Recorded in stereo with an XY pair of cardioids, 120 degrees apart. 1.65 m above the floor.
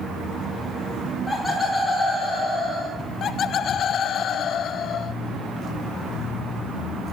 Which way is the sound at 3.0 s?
55° left.